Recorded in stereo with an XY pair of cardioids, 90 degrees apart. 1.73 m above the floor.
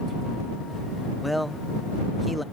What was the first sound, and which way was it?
A man speaking, straight ahead.